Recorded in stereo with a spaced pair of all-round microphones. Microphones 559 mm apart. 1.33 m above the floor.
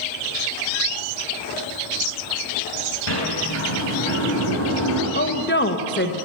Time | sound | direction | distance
3.1 | a sliding door | 50° left (ahead or behind) | 4.5 m
5.2 | a woman speaking | 20° left (ahead or behind) | 1.0 m